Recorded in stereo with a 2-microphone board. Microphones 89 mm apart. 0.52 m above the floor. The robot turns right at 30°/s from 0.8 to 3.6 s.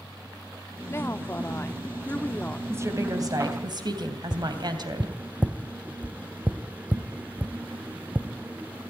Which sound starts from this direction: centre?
Tapping, at 4.3 s.